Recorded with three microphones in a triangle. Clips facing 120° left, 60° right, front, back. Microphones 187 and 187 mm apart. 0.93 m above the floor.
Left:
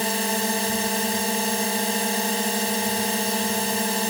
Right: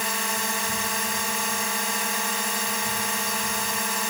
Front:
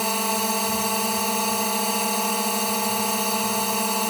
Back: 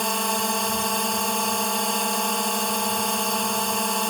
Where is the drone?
85° left.